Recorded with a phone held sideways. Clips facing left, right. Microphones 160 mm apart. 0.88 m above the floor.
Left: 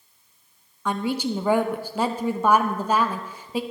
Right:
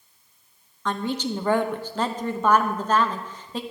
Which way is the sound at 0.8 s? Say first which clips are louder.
Left 2 dB; 10° left (ahead or behind).